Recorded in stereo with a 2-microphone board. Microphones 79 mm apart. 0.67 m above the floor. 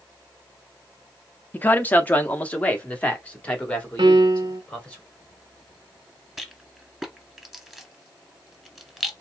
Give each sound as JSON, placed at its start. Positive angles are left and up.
{"t": 1.5, "sound": "a man speaking", "side_deg": 25, "distance_m": 0.7}
{"t": 4.0, "sound": "a piano", "side_deg": -75, "distance_m": 0.6}
{"t": 6.4, "sound": "a rattle", "side_deg": -5, "distance_m": 1.6}